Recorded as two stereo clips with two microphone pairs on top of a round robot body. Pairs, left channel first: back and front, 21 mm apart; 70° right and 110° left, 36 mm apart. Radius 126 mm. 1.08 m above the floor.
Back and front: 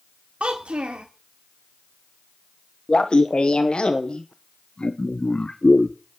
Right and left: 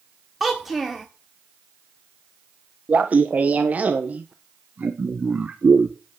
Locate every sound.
0.4 s a child speaking: 25° left, 1.3 m
2.9 s laughter: 150° left, 1.1 m